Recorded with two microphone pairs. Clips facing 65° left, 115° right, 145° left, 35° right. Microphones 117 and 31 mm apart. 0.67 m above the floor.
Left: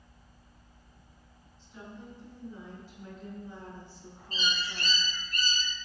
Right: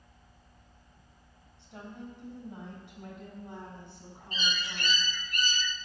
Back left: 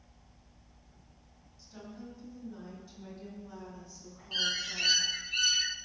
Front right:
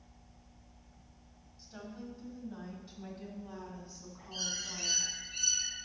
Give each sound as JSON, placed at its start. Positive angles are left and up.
{"t": 1.6, "sound": "a woman speaking", "azimuth_deg": -100, "distance_m": 4.5}
{"t": 4.3, "sound": "a bird", "azimuth_deg": 125, "distance_m": 0.6}